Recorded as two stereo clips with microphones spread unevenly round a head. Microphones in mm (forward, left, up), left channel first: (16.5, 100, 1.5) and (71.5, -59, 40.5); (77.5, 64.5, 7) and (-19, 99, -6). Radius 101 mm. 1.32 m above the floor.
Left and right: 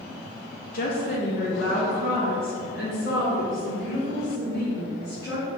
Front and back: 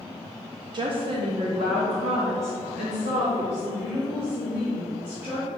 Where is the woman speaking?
125° left, 0.6 m; by 5.5 s 150° left, 4.5 m.